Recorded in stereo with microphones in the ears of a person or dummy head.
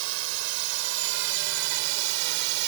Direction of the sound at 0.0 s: 75° right (ahead or behind).